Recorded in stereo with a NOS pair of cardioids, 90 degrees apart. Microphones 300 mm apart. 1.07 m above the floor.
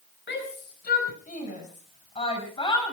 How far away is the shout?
About 5 m.